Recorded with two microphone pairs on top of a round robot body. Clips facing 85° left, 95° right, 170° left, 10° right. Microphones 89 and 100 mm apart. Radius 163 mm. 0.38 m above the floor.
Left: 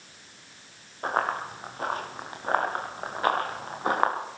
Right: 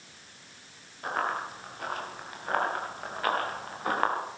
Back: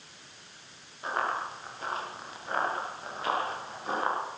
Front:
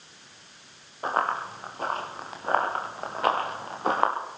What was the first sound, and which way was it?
Running footsteps, 35° left.